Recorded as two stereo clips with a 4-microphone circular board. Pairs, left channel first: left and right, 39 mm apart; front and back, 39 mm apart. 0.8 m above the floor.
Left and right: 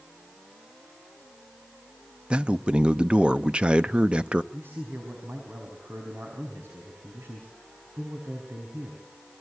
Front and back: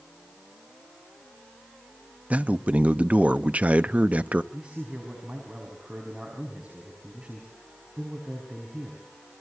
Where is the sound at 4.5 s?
115° right, 5 m.